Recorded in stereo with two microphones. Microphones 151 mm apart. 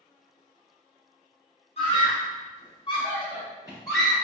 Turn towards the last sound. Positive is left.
turn(degrees=25)  # may be behind; listen again after turning